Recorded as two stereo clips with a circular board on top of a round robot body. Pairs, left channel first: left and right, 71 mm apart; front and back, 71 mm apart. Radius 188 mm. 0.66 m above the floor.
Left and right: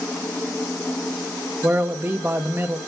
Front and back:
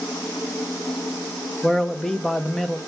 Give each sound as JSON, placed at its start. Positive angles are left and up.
{"t": 1.6, "sound": "a man speaking", "azimuth_deg": -75, "distance_m": 0.9}